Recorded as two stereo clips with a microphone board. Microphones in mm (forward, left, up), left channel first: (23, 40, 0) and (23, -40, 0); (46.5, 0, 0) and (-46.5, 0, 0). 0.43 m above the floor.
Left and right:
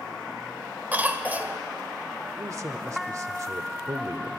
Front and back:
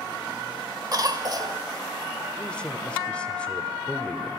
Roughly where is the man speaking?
Right.